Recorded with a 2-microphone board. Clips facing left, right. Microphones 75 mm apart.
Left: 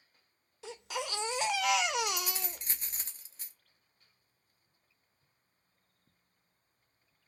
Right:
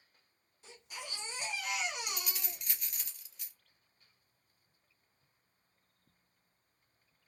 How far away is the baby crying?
About 0.6 m.